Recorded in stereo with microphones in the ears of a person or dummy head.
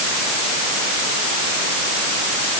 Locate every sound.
Only background noise.